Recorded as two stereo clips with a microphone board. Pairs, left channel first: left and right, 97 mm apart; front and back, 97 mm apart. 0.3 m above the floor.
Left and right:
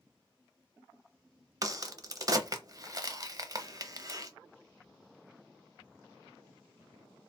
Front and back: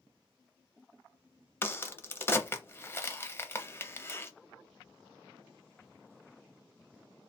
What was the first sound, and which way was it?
A crack, 55° right.